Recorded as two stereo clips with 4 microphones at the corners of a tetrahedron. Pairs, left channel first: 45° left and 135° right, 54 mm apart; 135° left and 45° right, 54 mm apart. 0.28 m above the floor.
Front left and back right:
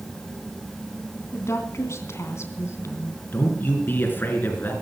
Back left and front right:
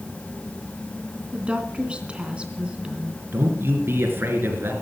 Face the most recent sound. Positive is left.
turn(degrees=-5)